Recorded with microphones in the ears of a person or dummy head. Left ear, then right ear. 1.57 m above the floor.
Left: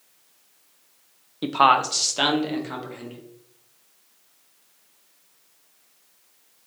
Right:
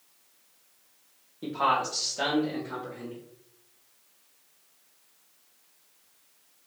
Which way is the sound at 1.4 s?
80° left.